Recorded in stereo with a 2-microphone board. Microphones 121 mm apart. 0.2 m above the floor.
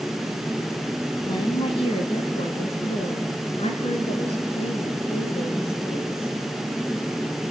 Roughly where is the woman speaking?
Left.